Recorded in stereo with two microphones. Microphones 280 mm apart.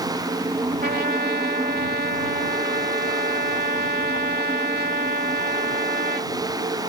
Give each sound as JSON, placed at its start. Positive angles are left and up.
{"t": 0.8, "sound": "a trumpet", "side_deg": -35}